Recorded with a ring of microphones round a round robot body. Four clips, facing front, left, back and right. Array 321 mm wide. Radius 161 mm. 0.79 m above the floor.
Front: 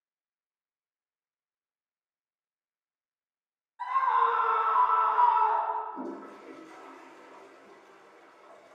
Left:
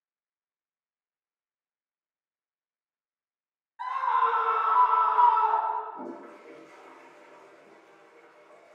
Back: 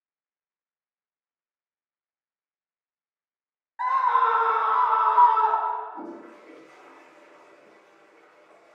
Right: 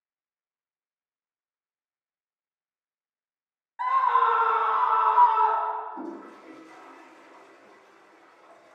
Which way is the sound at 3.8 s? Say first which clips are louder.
Right 4 dB, back 4 dB; 145° right.